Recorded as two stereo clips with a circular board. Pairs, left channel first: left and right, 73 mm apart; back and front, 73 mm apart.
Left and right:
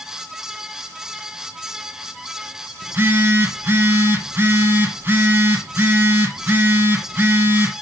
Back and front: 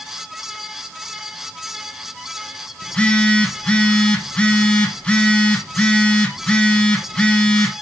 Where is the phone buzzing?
115° right, 1.1 m.